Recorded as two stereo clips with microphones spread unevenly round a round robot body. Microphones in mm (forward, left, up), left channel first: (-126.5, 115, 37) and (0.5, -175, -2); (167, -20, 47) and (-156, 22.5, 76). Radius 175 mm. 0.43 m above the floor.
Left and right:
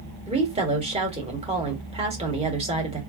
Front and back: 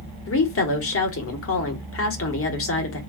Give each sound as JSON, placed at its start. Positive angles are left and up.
{"t": 0.3, "sound": "a woman speaking", "azimuth_deg": -10, "distance_m": 1.5}